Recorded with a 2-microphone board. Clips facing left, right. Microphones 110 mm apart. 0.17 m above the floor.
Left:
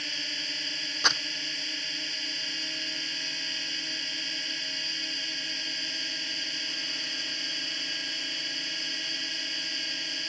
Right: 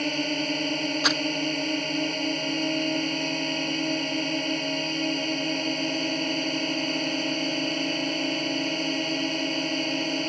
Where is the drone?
55° right (ahead or behind).